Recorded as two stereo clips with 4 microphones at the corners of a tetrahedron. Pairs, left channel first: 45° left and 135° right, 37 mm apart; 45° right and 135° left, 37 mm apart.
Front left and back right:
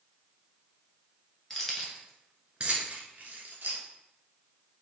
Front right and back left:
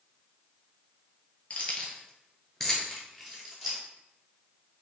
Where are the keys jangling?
30° right, 1.0 m; by 3.8 s 150° right, 1.4 m.